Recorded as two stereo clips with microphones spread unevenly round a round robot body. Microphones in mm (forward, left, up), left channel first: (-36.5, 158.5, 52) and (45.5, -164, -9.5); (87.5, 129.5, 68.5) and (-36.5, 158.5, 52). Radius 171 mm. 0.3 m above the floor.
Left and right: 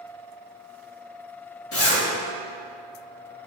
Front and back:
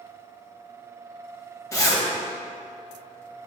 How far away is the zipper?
About 1.7 m.